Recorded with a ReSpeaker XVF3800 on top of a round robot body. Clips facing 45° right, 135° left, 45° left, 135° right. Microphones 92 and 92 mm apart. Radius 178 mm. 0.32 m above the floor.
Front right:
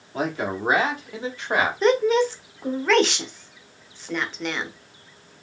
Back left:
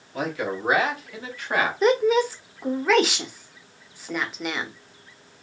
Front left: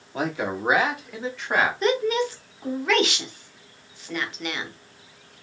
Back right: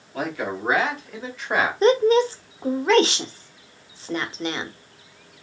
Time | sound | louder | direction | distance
0.1 | a man speaking | front right 1 dB, front left 1 dB | 5° right | 1.6 m
1.8 | a woman speaking | even, back right 6 dB | 145° right | 0.9 m